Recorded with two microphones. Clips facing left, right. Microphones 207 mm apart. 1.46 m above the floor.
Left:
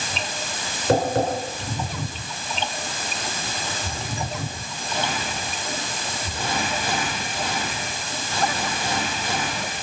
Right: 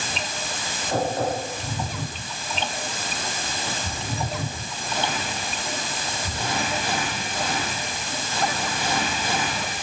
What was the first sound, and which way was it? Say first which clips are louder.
Tapping: left 5 dB; 80° left.